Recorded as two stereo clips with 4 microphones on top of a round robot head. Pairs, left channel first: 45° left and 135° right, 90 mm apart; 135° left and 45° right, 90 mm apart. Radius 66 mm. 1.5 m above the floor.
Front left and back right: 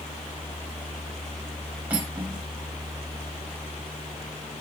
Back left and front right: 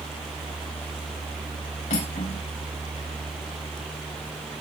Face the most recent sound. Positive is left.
turn(degrees=150)